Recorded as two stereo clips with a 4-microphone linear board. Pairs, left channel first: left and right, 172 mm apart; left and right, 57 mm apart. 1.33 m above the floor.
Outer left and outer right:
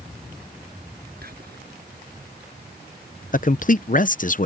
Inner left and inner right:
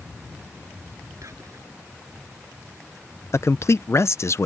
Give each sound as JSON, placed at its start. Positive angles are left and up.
{"t": 1.2, "sound": "whispering", "side_deg": -65}
{"t": 3.3, "sound": "a man speaking", "side_deg": 50}